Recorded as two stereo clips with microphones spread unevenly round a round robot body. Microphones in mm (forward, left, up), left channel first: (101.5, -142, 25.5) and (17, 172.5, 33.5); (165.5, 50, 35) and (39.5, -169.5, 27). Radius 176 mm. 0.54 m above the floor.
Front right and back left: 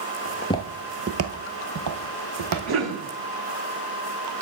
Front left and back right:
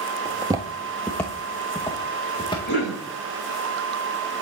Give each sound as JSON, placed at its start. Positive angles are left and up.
{"t": 0.2, "sound": "footsteps", "azimuth_deg": -60, "distance_m": 0.6}
{"t": 2.7, "sound": "a cough", "azimuth_deg": 110, "distance_m": 4.0}